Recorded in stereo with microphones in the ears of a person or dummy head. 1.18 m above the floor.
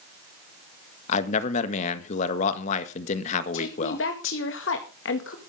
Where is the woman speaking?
75° left (ahead or behind), 2.0 m.